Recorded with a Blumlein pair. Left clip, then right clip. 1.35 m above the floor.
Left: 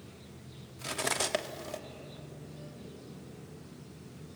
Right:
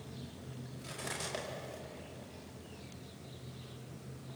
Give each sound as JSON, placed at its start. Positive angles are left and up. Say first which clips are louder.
{"t": 0.8, "sound": "cutlery clinking", "louder": "left 9 dB", "azimuth_deg": 60, "distance_m": 1.6}